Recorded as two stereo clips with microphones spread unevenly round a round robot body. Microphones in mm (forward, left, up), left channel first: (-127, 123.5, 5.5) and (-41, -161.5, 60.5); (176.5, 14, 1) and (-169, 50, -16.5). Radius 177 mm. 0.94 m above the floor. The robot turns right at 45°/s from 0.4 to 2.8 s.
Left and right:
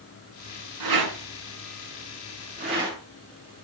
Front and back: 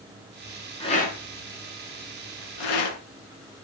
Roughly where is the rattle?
Right.